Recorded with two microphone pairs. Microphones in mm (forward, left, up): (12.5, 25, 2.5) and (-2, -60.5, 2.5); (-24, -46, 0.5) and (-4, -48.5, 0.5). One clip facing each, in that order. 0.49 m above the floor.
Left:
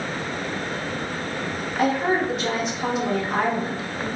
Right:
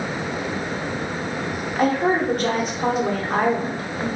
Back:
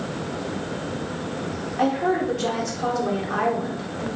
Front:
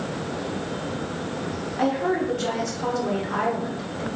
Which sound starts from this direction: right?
A woman speaking, at 1.8 s.